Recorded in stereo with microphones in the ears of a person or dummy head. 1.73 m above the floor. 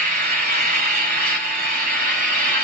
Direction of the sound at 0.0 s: 40° right (ahead or behind).